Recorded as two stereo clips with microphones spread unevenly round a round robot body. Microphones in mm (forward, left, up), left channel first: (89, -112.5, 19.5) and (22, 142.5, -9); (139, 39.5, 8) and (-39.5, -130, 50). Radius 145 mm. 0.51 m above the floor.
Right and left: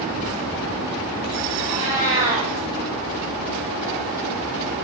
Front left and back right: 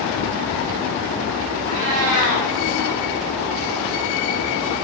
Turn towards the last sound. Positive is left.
turn(degrees=170)